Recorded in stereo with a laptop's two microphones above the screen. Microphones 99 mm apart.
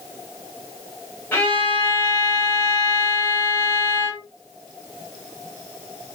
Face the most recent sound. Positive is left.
turn(degrees=20)  # may be behind; listen again after turning